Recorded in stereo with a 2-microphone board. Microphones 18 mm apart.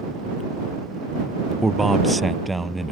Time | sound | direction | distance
1.6 | a man speaking | centre (ahead or behind) | ?